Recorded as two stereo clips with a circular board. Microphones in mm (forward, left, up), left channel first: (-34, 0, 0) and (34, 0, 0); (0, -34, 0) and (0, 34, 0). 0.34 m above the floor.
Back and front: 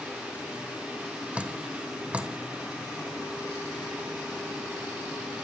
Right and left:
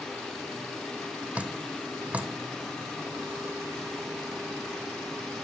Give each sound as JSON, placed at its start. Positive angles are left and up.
{"t": 1.4, "sound": "dripping", "azimuth_deg": 45, "distance_m": 1.1}